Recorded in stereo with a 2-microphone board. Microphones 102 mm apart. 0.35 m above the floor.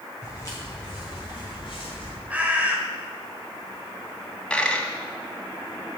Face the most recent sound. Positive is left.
turn(degrees=10)  # may be behind; listen again after turning